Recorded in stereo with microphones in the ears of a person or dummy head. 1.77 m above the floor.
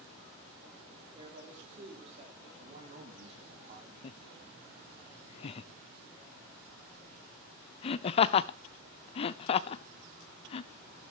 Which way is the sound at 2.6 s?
40° right (ahead or behind).